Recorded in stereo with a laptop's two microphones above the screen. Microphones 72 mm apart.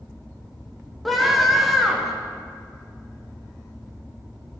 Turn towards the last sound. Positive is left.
turn(degrees=0)  # may be behind; listen again after turning